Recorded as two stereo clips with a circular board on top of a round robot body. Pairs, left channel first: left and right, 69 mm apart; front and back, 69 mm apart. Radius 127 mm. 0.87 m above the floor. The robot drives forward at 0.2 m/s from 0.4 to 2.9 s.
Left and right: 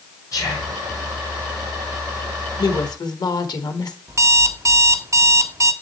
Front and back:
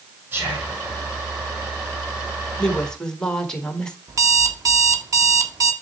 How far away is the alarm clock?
About 0.8 m.